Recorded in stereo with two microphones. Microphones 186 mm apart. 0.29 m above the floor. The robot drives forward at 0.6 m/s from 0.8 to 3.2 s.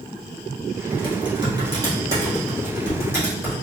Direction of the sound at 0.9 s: 30° right (ahead or behind).